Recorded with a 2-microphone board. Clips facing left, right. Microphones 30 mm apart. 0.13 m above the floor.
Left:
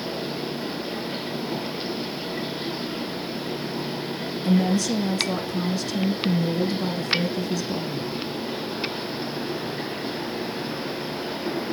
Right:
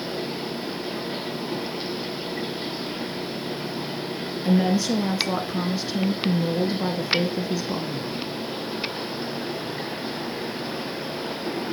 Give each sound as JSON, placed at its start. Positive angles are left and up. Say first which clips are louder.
{"t": 4.5, "sound": "a woman speaking", "louder": "right 1 dB", "side_deg": -20, "distance_m": 1.3}